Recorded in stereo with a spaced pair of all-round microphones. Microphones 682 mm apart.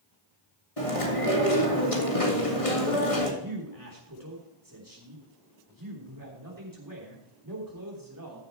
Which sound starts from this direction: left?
Chewing, at 0.8 s.